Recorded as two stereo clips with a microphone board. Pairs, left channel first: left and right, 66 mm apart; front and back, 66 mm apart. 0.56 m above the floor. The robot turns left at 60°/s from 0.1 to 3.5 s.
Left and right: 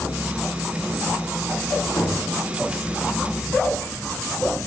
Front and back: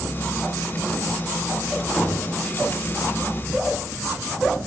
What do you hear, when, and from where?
2.0 s knocking: 85° left, 5.5 m; by 2.3 s 65° left, 5.5 m